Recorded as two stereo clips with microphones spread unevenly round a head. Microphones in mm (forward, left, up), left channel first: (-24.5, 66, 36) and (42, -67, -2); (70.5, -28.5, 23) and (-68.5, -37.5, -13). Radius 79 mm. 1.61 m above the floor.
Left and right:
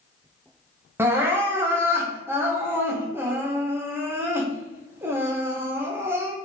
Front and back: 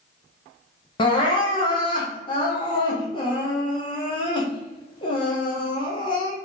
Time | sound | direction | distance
1.0 | crying | 20° left | 0.9 m